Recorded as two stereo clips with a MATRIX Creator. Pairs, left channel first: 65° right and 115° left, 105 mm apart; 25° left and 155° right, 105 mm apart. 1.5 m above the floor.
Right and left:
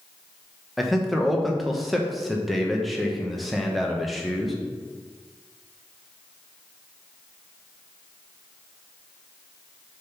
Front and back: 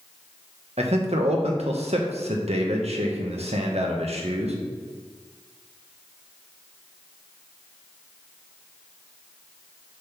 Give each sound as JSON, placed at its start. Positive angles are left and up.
{"t": 0.8, "sound": "a man speaking", "azimuth_deg": -160, "distance_m": 1.2}